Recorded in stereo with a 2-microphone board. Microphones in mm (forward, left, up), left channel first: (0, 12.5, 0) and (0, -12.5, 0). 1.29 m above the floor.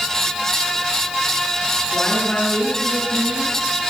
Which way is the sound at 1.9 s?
55° left (ahead or behind).